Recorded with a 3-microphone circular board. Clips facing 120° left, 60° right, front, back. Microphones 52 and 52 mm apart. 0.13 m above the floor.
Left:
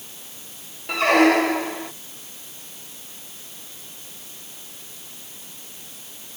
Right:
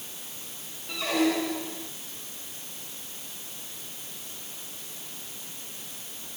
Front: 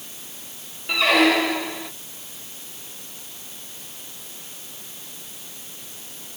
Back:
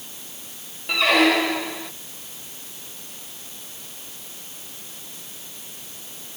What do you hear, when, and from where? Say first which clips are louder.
0.9 s a squeak: left 10 dB, even; 90° left